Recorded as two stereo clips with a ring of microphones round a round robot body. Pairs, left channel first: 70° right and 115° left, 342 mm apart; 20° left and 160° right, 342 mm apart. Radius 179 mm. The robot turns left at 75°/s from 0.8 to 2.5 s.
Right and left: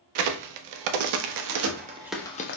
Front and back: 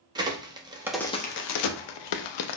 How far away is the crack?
About 0.6 m.